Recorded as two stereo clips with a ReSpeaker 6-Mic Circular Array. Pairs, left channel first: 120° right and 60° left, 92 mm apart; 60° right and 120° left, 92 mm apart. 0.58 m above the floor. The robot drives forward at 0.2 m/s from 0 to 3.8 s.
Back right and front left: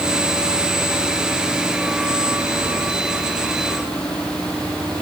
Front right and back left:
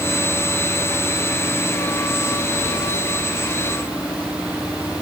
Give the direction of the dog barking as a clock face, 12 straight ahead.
No dog barking in this recording.